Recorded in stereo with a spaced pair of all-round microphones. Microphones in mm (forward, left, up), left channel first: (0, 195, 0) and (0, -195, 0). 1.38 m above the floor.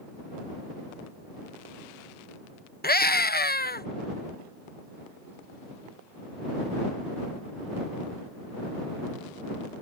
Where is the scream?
25° left (ahead or behind).